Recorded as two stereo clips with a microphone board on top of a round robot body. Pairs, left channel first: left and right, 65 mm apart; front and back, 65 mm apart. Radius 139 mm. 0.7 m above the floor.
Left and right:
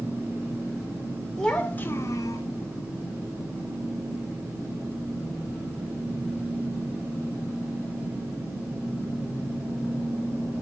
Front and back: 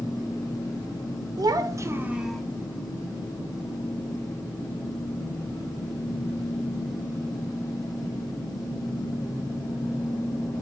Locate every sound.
1.4 s a child speaking: 175° left, 1.0 m; by 2.4 s 85° left, 0.7 m